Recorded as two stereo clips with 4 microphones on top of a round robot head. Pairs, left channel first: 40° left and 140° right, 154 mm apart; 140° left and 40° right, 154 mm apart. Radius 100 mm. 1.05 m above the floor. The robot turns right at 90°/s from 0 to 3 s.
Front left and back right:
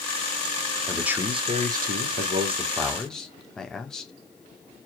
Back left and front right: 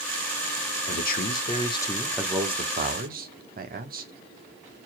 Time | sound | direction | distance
0.9 | a man speaking | 120° left | 1.5 m